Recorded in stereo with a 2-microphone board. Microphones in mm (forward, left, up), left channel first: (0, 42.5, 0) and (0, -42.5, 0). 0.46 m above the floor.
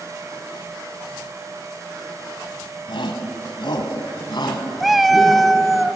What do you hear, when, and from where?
2.9 s a shout: 70° left (ahead or behind), 3 m; by 5.5 s 55° left (ahead or behind), 4 m
4.8 s a cat meowing: centre (ahead or behind), 0.7 m